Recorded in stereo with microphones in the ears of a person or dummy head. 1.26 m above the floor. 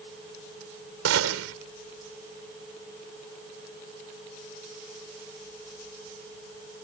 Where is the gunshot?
80° right.